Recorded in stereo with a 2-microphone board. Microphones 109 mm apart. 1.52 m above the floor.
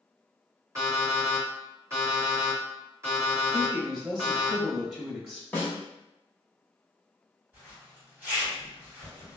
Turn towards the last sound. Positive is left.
turn(degrees=-15)  # may be behind; listen again after turning